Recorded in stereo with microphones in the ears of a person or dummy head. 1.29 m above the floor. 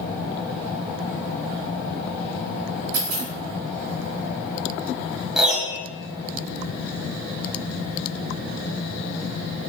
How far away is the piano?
About 0.5 m.